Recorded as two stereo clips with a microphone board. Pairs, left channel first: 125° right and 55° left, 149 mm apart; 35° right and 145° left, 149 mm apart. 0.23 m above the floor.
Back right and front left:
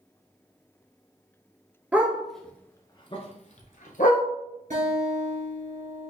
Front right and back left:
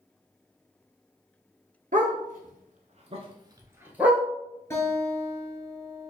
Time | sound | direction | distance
1.9 | a dog barking | 135° left | 1.0 m
4.7 | a guitar | 35° left | 1.6 m